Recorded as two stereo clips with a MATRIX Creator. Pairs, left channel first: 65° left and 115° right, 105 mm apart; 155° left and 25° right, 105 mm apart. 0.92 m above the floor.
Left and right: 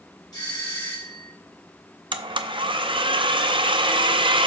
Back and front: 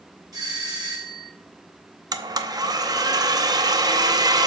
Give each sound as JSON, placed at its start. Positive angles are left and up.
{"t": 0.3, "sound": "a doorbell", "azimuth_deg": 25, "distance_m": 2.5}
{"t": 2.1, "sound": "a blender", "azimuth_deg": -75, "distance_m": 0.6}